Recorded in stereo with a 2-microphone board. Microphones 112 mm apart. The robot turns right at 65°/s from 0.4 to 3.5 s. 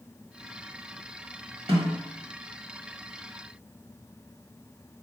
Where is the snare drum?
55° right (ahead or behind), 1.1 m; by 2.0 s 45° right (ahead or behind), 1.1 m.